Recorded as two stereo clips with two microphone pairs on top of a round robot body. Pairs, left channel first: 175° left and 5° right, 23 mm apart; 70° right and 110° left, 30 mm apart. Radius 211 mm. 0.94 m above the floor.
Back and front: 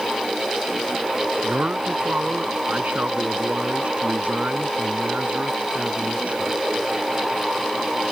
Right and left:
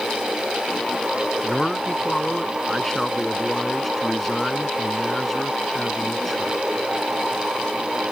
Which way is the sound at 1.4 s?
15° left.